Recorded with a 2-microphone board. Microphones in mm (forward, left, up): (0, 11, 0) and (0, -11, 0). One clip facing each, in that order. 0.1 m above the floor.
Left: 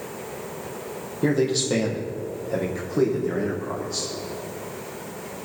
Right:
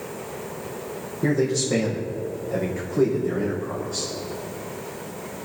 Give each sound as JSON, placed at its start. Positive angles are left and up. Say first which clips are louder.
{"t": 1.2, "sound": "a man speaking", "louder": "left 1 dB", "side_deg": 60, "distance_m": 4.0}